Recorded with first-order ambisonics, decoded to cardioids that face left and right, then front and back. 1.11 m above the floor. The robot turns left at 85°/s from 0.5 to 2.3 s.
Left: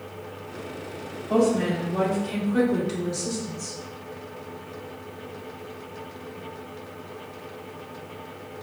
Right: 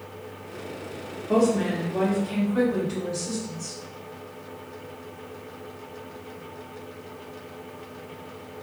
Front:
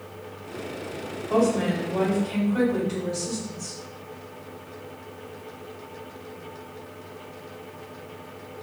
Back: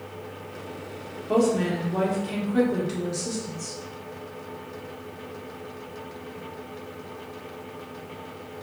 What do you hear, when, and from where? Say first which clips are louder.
1.3 s a woman speaking: even, even; 140° right, 1.3 m; by 3.8 s 135° left, 1.3 m